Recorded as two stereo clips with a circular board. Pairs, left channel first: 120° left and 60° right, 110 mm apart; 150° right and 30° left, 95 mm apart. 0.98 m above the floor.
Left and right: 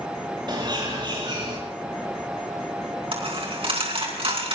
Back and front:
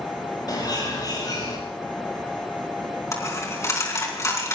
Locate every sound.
0.5 s a bird: 105° right, 7.5 m
3.1 s a dropped coin: 95° right, 4 m